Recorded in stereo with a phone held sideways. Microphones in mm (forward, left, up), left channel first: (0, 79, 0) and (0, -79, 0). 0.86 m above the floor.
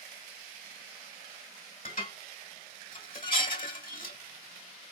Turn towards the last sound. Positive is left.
turn(degrees=60)  # may be behind; listen again after turning